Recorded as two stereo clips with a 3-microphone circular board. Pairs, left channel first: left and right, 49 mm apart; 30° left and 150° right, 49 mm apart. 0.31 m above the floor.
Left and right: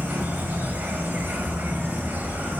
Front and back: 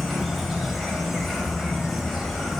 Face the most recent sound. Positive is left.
turn(degrees=-60)